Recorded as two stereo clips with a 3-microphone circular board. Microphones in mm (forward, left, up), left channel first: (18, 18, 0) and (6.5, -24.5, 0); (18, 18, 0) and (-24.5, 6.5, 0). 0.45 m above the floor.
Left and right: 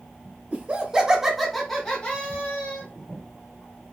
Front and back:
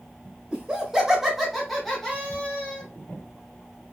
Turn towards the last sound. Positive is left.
turn(degrees=75)